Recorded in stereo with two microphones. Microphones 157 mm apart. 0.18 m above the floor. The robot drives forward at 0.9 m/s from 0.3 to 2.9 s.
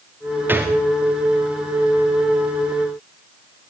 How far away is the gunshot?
About 4.5 m.